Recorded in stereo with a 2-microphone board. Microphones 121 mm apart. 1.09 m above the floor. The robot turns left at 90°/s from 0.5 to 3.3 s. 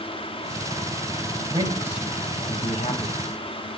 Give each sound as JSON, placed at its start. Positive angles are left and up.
{"t": 1.5, "sound": "a man speaking", "side_deg": -45, "distance_m": 1.5}